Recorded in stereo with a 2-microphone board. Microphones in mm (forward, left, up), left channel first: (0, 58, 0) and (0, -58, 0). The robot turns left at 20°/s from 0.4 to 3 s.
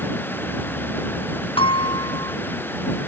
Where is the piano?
50° left (ahead or behind); by 2.4 s 35° left (ahead or behind).